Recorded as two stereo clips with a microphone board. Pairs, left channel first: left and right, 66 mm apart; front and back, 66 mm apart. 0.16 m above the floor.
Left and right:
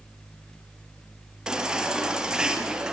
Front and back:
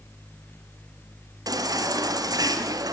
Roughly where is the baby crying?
Behind.